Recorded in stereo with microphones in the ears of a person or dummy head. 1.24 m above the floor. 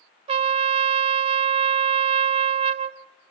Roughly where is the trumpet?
Right.